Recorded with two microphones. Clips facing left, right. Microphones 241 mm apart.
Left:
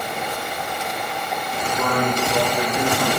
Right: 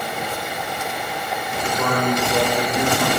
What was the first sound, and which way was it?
A man speaking, centre (ahead or behind).